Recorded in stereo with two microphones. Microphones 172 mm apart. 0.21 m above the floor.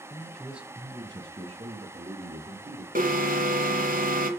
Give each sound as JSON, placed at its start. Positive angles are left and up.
{"t": 0.1, "sound": "a man speaking", "side_deg": 20, "distance_m": 1.2}
{"t": 3.0, "sound": "an alarm", "side_deg": -55, "distance_m": 1.7}